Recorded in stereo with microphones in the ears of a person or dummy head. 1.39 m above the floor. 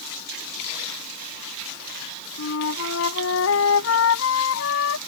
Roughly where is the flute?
Left.